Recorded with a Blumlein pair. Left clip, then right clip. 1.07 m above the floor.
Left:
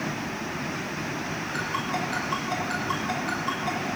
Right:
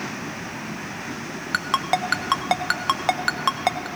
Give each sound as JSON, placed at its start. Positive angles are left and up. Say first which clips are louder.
{"t": 1.5, "sound": "a ringtone", "louder": "right 8 dB", "azimuth_deg": -40, "distance_m": 0.6}